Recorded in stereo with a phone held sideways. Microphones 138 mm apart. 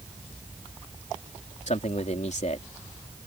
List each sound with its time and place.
1.7 s a man speaking: 60° left (ahead or behind)